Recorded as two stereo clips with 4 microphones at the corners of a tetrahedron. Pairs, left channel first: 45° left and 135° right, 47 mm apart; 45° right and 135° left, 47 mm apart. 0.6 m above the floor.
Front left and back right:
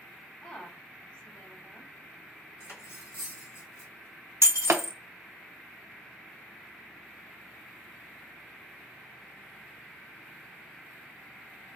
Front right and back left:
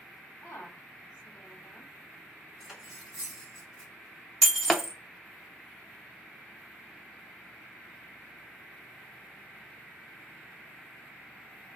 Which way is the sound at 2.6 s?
55° left.